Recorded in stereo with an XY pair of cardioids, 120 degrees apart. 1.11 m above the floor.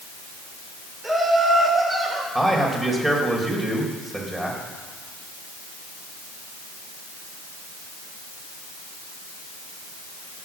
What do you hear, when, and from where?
1.0 s laughter: 20° right, 5 m; by 2.2 s 30° right, 5 m
2.4 s a man speaking: 15° right, 4 m